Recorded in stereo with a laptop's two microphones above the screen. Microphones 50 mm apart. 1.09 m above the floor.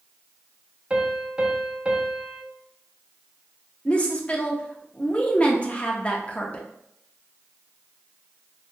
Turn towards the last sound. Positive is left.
turn(degrees=25)  # may be behind; listen again after turning